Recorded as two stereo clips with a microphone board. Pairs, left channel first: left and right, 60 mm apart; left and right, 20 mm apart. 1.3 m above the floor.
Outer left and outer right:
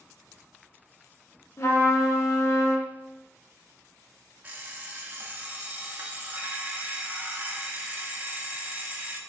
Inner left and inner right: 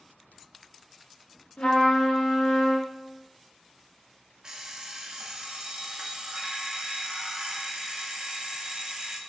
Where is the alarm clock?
30° right (ahead or behind), 0.5 m.